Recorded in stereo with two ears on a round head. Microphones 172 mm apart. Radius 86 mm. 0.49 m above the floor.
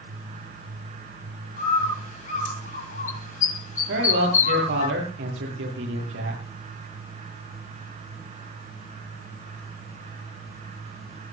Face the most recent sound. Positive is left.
turn(degrees=-65)  # may be behind; listen again after turning